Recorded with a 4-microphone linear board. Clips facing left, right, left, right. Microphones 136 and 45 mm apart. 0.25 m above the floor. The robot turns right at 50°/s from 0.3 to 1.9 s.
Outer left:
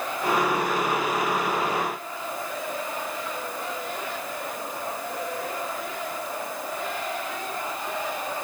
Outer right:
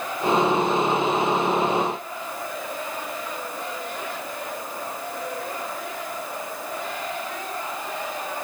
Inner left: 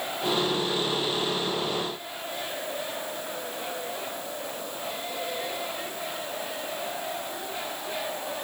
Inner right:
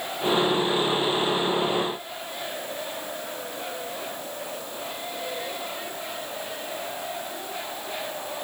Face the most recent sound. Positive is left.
No sound to turn to.